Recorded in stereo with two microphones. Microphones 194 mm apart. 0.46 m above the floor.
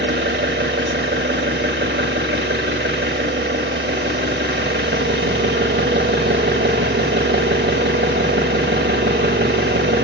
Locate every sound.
0.0 s an engine running: 65° right (ahead or behind), 1.0 m